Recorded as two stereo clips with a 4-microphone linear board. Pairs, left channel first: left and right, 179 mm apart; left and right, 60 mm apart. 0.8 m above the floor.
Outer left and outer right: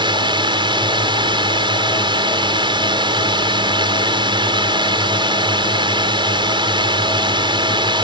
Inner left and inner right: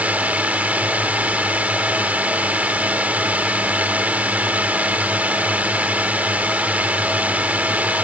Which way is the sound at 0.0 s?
25° right (ahead or behind).